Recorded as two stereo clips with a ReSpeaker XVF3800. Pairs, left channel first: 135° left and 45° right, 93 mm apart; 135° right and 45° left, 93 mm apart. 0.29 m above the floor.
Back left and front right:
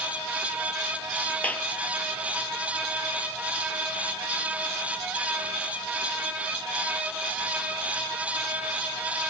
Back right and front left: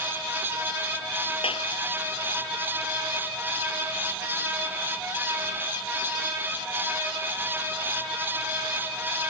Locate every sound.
1.4 s a clap: 150° right